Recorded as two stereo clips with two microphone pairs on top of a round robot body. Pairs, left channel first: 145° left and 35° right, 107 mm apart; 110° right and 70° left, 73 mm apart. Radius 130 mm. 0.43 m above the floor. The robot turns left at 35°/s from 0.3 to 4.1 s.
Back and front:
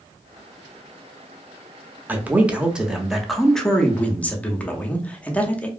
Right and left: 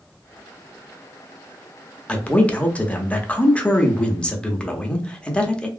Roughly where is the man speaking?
Right.